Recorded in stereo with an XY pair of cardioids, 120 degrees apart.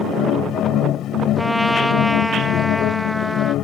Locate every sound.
0.0 s a machine running: 70° left
1.4 s a trumpet: 5° left